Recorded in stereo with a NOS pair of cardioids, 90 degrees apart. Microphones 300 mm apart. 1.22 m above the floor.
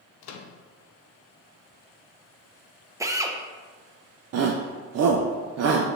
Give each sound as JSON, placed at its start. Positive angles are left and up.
{"t": 0.2, "sound": "a microwave", "azimuth_deg": 65, "distance_m": 0.6}
{"t": 3.0, "sound": "a drill", "azimuth_deg": -10, "distance_m": 0.6}
{"t": 4.3, "sound": "a shout", "azimuth_deg": -55, "distance_m": 0.5}